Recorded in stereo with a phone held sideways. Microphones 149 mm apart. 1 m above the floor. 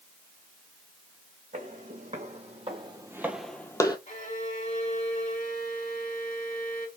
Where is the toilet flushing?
No toilet flushing in this recording.